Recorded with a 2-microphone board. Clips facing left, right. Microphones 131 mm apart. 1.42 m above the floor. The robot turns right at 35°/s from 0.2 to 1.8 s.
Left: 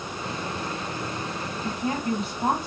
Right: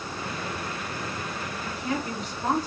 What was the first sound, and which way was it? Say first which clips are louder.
A woman speaking: left 4 dB; 45° left (ahead or behind).